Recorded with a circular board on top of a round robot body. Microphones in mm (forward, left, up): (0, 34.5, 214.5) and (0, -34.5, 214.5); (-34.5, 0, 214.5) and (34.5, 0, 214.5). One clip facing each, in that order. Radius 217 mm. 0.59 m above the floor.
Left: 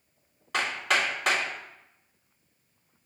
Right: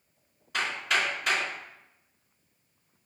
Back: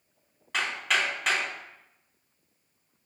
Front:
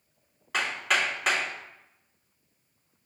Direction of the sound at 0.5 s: 90° left.